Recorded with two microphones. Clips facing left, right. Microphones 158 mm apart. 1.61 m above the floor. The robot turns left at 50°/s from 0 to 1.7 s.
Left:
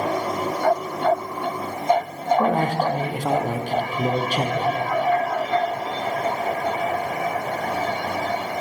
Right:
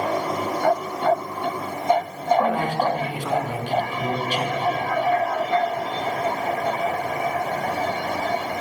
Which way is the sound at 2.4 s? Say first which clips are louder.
Left 1 dB; 45° left (ahead or behind).